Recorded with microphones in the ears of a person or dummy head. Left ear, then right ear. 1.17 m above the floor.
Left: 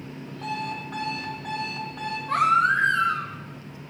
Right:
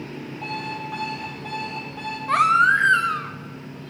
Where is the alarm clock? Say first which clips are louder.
Even; 5° left (ahead or behind), 1.9 m.